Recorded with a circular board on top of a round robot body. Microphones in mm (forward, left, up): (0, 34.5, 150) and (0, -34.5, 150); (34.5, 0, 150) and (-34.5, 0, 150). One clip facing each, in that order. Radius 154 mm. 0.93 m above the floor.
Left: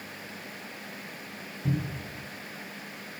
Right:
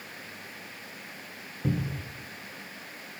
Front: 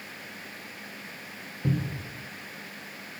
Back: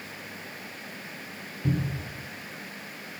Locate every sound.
1.6 s a cupboard door: 55° right, 1.0 m